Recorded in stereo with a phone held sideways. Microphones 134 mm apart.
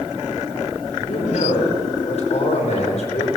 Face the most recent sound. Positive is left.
turn(degrees=55)  # may be behind; listen again after turning